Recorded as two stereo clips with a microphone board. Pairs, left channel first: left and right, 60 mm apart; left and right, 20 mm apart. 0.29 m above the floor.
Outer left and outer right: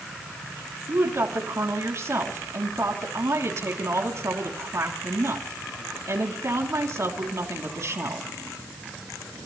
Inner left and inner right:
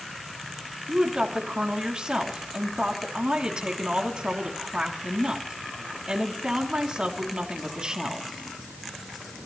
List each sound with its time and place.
0.9 s a woman speaking: 55° right (ahead or behind), 3 m